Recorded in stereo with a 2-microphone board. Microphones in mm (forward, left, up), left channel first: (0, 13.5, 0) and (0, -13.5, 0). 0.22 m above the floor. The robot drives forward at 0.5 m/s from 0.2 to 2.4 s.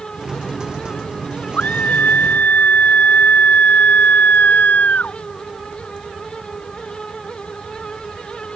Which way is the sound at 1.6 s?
80° left.